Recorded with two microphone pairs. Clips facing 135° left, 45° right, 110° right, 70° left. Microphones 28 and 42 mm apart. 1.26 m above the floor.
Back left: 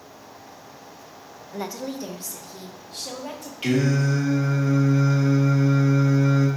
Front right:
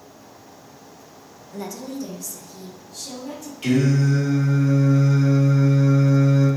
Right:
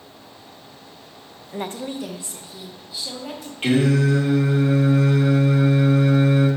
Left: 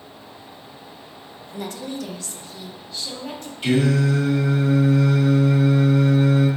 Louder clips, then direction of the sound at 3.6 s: Front right 2 dB, right 1 dB; 155° right.